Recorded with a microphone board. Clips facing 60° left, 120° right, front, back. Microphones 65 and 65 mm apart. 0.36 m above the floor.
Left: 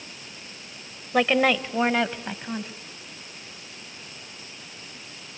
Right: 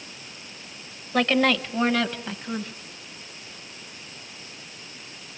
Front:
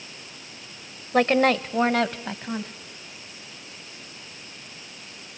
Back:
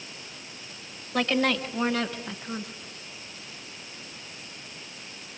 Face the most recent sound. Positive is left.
turn(degrees=0)